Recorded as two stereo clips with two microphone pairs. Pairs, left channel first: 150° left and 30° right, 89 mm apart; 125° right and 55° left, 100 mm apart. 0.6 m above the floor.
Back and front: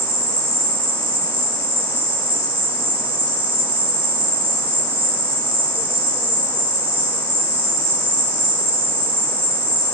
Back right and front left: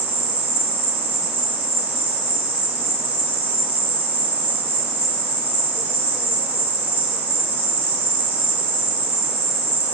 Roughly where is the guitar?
No guitar in this recording.